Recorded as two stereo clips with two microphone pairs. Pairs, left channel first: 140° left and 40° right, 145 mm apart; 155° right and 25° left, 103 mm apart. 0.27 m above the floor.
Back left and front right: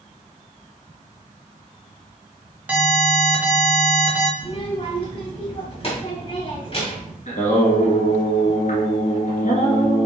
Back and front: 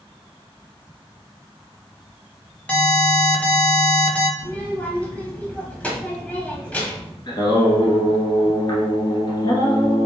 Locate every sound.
2.7 s an alarm: 105° right, 1.2 m
4.4 s a child speaking: 135° left, 1.3 m
7.3 s singing: 165° left, 1.2 m